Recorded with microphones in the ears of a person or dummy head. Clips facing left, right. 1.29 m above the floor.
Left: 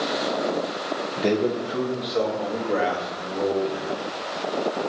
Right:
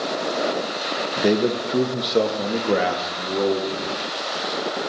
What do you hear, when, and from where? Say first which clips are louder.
1.2 s a man speaking: right 3 dB; 15° right (ahead or behind), 0.8 m; by 4.0 s 75° right (ahead or behind), 2.5 m